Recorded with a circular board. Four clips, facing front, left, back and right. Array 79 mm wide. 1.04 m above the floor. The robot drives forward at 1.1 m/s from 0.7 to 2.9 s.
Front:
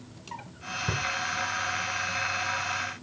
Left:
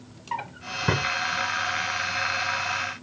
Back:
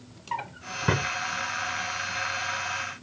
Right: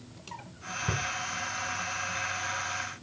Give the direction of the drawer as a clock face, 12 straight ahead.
8 o'clock.